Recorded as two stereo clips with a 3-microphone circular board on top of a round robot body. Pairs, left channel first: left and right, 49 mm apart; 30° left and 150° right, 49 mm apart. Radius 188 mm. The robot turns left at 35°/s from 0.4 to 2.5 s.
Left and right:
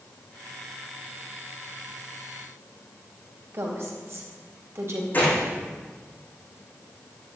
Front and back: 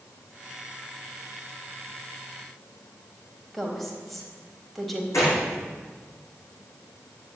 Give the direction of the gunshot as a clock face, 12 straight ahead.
11 o'clock.